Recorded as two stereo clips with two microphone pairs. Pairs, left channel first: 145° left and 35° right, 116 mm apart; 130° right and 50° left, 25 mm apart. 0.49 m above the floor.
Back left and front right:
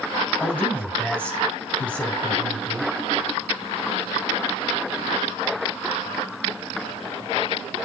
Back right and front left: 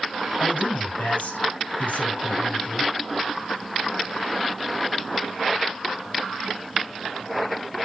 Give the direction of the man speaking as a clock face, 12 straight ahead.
5 o'clock.